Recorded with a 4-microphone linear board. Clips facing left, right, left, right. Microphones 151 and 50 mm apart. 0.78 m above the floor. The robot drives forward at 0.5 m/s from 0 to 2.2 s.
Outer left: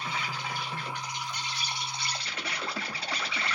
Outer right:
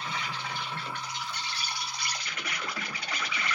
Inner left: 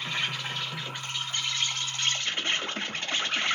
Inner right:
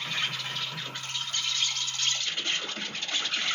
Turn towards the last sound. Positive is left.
turn(degrees=30)  # may be behind; listen again after turning